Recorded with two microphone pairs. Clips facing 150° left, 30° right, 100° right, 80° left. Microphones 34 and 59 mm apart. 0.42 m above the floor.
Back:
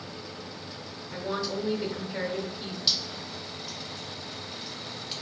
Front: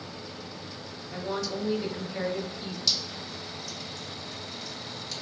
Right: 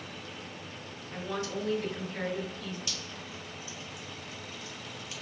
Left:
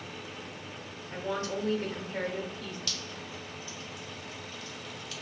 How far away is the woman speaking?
About 1.1 m.